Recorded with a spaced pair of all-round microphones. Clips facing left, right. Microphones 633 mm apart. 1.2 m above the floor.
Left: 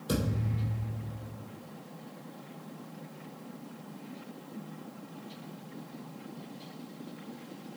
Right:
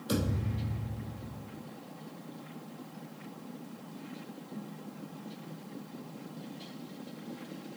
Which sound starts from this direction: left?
A thud, at 0.1 s.